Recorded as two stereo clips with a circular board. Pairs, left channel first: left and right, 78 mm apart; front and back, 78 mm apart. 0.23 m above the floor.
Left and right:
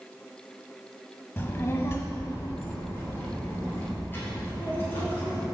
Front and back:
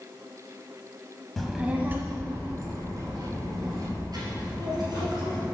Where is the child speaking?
80° left, 0.6 m; by 5.5 s 155° left, 3.5 m.